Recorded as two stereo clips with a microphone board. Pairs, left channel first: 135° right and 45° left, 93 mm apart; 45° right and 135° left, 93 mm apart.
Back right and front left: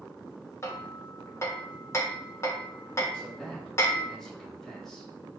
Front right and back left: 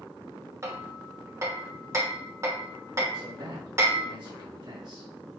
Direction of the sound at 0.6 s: Straight behind.